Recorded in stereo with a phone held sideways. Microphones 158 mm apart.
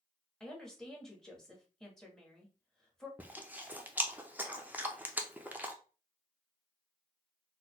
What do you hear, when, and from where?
0.4 s a woman speaking: 5° left (ahead or behind), 1.0 m
3.2 s chewing: 10° right (ahead or behind), 0.5 m